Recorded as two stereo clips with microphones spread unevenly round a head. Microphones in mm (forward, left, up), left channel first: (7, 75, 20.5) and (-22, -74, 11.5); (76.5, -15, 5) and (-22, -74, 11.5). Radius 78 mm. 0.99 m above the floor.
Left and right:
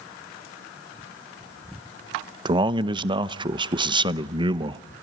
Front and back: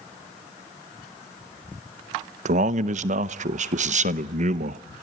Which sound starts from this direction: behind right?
A man speaking, at 2.5 s.